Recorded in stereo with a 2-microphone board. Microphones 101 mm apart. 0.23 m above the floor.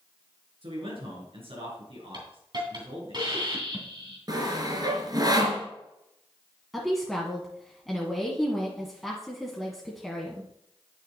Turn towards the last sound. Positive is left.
turn(degrees=0)  # may be behind; listen again after turning